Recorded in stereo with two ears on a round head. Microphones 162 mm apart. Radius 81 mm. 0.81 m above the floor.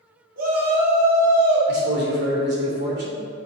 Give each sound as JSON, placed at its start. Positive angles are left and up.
{"t": 0.4, "sound": "a shout", "side_deg": -50, "distance_m": 2.5}
{"t": 1.7, "sound": "a man speaking", "side_deg": -60, "distance_m": 2.5}